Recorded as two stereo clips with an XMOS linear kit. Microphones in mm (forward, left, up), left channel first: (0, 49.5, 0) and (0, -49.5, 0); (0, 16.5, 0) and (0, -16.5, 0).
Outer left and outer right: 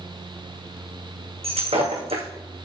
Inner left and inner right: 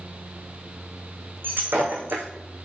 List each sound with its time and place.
1.4 s breaking glass: 85° right, 3 m